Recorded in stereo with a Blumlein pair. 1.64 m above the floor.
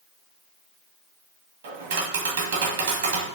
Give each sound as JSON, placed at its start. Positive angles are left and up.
{"t": 1.6, "sound": "tapping", "azimuth_deg": -50, "distance_m": 2.0}